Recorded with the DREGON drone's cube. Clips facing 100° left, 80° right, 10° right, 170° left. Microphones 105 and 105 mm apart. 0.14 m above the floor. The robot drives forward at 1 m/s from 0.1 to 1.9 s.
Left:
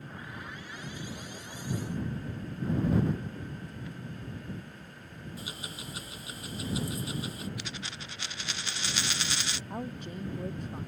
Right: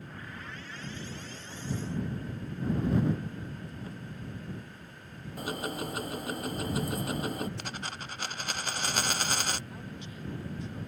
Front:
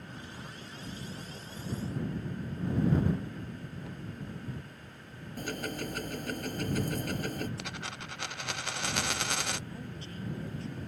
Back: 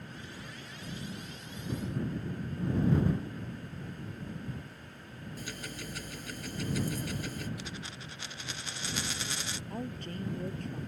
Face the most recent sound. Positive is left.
turn(degrees=140)